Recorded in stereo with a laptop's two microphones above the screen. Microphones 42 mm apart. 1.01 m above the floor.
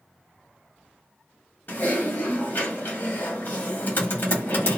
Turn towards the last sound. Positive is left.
turn(degrees=50)  # may be behind; listen again after turning